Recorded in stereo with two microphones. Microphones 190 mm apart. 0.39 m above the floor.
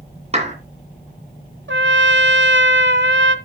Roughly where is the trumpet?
Right.